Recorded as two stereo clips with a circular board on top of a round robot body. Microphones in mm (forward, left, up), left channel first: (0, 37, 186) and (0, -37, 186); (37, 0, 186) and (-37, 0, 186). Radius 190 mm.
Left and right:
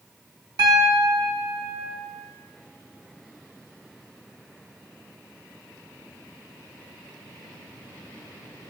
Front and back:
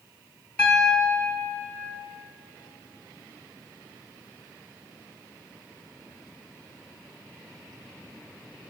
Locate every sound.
0.6 s a piano: 80° right, 1.9 m